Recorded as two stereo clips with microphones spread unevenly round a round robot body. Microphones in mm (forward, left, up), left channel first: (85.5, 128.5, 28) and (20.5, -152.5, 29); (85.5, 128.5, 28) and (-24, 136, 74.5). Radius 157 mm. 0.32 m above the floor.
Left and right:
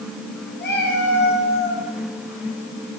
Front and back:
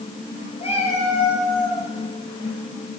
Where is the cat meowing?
20° left, 4.5 m; by 1.9 s 35° left, 2.5 m.